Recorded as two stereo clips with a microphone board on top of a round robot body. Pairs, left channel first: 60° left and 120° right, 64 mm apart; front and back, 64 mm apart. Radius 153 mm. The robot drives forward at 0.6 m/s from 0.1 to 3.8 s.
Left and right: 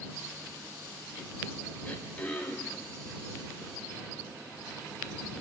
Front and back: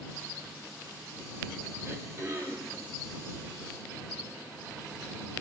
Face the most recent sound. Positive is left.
turn(degrees=145)